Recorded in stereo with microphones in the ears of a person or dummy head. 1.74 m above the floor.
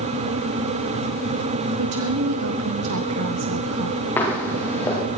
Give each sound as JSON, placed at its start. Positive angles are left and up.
{"t": 1.8, "sound": "a woman speaking", "side_deg": -85, "distance_m": 1.7}
{"t": 4.2, "sound": "footsteps", "side_deg": 20, "distance_m": 8.0}